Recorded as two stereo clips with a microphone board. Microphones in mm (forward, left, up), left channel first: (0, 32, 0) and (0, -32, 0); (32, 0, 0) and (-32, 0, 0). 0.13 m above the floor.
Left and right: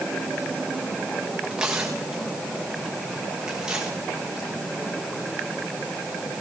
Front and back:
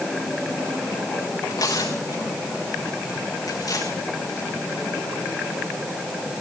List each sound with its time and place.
1.5 s tearing paper: 15° right, 4 m